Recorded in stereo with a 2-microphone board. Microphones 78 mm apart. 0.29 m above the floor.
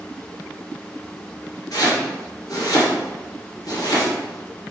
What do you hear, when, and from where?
1.7 s chopping: 55° left (ahead or behind), 2 m